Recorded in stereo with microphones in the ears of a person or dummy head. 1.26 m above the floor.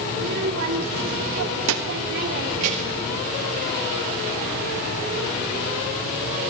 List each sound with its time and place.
0.1 s a child speaking: 50° right (ahead or behind), 2 m; by 3.1 s 30° right (ahead or behind), 2 m